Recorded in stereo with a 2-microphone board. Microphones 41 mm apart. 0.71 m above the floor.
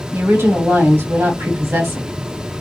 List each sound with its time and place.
0.1 s a woman speaking: 65° right (ahead or behind), 1.9 m